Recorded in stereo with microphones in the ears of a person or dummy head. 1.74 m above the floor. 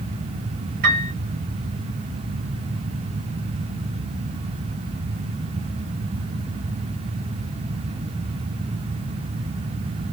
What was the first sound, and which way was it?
A piano, 45° right (ahead or behind).